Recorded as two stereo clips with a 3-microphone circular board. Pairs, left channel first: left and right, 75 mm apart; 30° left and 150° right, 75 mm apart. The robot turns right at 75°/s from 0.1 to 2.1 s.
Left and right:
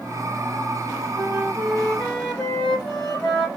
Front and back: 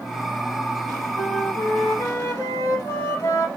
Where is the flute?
40° right, 2.5 m; by 3.5 s 30° left, 2.5 m.